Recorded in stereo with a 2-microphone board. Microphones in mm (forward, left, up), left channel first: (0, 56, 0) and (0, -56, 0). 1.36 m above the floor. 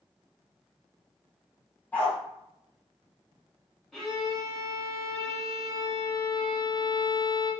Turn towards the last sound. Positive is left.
turn(degrees=0)  # may be behind; listen again after turning